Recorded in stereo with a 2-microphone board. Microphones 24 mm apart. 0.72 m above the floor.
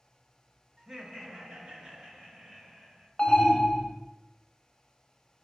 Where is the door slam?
No door slam in this recording.